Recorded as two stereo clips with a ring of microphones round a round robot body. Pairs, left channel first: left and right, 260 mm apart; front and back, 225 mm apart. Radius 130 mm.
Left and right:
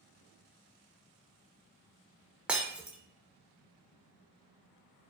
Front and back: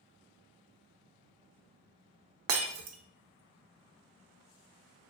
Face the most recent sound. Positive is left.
turn(degrees=-175)